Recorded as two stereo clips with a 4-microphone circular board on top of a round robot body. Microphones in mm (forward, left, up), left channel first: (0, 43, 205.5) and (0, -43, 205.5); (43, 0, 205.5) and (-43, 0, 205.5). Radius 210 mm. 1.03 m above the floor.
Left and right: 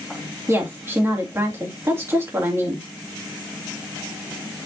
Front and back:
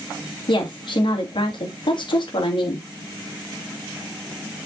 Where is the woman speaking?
30° right, 2.5 m.